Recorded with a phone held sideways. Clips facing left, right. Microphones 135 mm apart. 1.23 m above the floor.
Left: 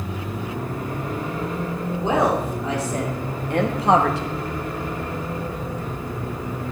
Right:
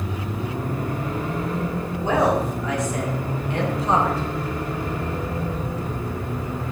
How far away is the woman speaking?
About 3 m.